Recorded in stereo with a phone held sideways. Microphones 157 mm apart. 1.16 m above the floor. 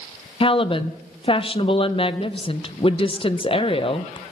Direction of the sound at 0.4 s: 35° left (ahead or behind).